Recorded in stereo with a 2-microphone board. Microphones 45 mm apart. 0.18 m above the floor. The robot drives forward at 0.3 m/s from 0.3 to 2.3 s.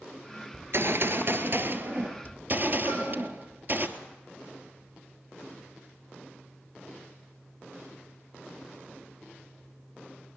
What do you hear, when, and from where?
0.5 s a gunshot: 65° right (ahead or behind), 1.1 m; by 3.9 s 45° right (ahead or behind), 1.3 m
2.9 s a cowbell: 65° right (ahead or behind), 8 m